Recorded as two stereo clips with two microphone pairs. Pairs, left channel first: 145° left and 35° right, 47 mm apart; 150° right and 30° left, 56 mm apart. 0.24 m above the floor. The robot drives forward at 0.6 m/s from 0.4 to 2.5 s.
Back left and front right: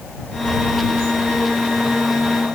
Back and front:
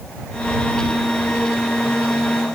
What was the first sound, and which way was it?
Only background noise.